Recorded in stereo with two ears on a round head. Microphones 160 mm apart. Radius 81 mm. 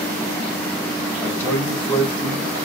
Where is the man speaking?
10° left (ahead or behind), 3 m.